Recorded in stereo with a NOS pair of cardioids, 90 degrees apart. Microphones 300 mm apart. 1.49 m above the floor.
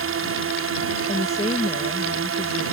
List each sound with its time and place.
0.0 s a drone: 50° right
1.1 s a woman speaking: 20° left